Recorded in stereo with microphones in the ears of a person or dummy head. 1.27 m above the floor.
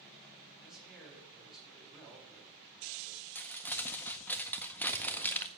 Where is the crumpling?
10° left (ahead or behind), 0.6 m.